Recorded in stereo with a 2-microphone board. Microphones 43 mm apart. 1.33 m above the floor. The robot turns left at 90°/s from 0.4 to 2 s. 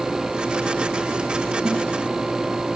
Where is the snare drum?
5° right (ahead or behind), 2.5 m; by 1.8 s 10° left (ahead or behind), 2.5 m.